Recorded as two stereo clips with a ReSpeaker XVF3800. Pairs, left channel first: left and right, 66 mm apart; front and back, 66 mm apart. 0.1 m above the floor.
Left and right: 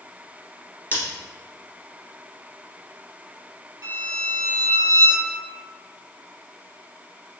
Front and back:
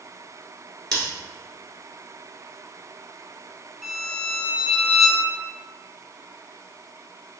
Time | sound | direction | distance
0.9 | scissors | 70° left | 1.5 m
3.8 | a violin | 90° right | 1.7 m